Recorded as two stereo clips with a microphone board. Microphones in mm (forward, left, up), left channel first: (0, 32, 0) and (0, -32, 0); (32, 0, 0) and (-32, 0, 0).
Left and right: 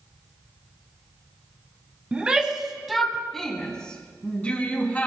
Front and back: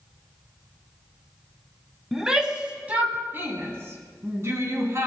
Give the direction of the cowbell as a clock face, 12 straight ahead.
I don't hear a cowbell.